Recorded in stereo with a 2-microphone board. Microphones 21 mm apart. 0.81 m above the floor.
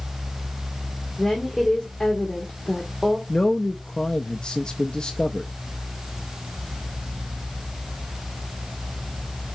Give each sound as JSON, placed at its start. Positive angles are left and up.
{"t": 1.2, "sound": "a woman speaking", "side_deg": 30, "distance_m": 1.9}
{"t": 3.3, "sound": "a man speaking", "side_deg": 45, "distance_m": 0.6}